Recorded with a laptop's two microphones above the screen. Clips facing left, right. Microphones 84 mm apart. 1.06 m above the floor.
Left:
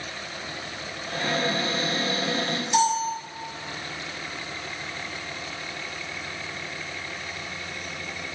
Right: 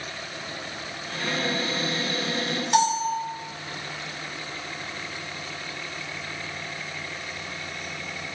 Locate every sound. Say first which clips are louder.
1.1 s a cupboard door: left 2 dB; 45° left (ahead or behind), 3 m
2.7 s a bell: right 1 dB; 50° right (ahead or behind), 2.5 m